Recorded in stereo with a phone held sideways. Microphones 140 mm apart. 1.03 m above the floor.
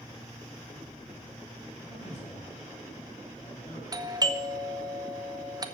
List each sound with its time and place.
1.8 s a man speaking: 55° left (ahead or behind), 7.5 m
3.9 s a doorbell: 25° right (ahead or behind), 0.9 m